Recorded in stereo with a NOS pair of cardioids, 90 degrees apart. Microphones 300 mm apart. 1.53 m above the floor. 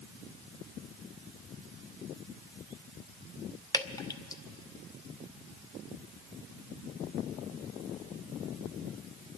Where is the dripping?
10° left, 0.7 m.